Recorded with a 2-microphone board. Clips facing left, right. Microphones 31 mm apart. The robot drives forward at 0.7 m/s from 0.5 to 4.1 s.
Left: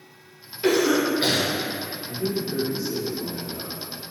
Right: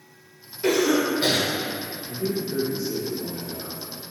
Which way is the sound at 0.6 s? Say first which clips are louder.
Left 1 dB; 40° left (ahead or behind).